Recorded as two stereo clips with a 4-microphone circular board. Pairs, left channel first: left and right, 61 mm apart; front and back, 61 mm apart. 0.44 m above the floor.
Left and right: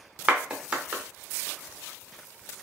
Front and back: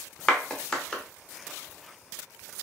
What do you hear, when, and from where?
0.3 s a clap: 55° right, 0.8 m